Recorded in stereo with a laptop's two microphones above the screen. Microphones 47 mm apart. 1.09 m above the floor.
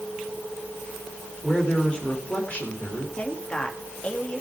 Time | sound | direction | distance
1.4 | a man speaking | 20° left (ahead or behind) | 3.5 m
3.2 | a woman speaking | 30° left (ahead or behind) | 1.9 m